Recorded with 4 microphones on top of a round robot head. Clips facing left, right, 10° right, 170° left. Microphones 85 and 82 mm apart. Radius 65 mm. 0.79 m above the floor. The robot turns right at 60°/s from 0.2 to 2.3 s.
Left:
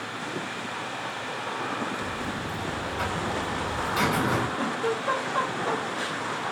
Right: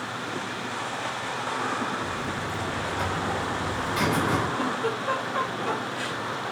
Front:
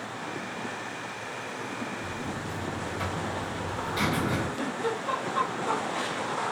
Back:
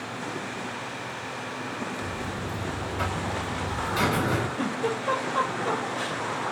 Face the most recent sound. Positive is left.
turn(degrees=160)